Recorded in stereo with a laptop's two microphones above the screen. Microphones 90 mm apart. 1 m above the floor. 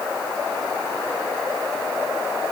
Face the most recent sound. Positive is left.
No sound to turn to.